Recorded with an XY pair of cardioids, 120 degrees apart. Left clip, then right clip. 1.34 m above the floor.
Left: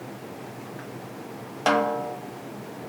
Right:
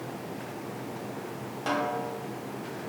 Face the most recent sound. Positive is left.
turn(degrees=60)